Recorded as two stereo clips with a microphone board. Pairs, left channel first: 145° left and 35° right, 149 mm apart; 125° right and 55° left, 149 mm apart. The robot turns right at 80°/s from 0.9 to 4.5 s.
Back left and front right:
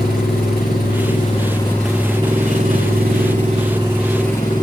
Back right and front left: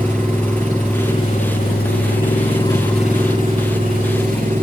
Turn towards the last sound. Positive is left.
turn(degrees=85)